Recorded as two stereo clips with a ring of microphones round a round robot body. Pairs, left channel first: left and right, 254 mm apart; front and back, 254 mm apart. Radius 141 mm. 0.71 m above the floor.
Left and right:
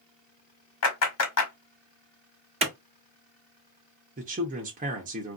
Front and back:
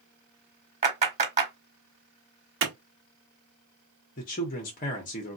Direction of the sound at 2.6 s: 150° right.